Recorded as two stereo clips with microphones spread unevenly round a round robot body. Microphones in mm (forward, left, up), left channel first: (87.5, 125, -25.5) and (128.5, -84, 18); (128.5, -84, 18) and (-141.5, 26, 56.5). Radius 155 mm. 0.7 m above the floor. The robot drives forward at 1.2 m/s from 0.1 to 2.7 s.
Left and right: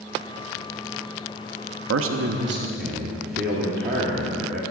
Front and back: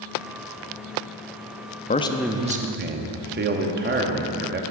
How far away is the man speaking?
About 0.8 m.